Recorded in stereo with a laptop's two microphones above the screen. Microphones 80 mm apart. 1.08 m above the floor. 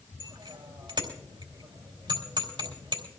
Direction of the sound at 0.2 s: 90° right.